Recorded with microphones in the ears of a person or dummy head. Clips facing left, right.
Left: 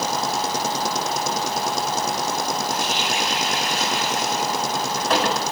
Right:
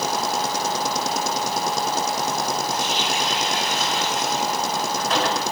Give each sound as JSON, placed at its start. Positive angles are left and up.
{"t": 2.7, "sound": "a running tap", "side_deg": 55, "distance_m": 5.0}